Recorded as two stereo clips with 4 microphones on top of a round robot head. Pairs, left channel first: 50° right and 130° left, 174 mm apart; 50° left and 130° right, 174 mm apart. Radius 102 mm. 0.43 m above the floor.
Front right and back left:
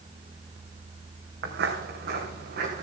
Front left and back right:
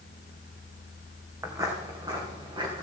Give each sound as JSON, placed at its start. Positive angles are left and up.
{"t": 1.4, "sound": "footsteps", "azimuth_deg": 155, "distance_m": 2.5}